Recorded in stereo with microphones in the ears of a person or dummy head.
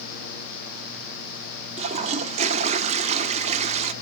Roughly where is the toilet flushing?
Right.